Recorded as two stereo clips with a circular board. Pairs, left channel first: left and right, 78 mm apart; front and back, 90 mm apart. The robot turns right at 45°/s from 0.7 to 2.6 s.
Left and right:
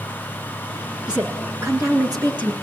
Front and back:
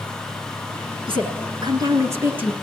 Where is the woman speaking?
170° right, 6 m; by 2.5 s 105° right, 6 m.